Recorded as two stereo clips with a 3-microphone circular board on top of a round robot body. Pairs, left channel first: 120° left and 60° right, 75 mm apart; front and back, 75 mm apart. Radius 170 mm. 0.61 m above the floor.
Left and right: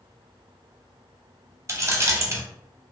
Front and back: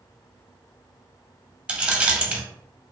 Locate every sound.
1.7 s keys jangling: 105° right, 0.7 m